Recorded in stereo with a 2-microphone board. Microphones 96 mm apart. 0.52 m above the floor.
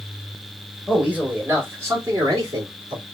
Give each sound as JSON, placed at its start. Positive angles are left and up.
{"t": 0.9, "sound": "a man speaking", "side_deg": -10, "distance_m": 1.7}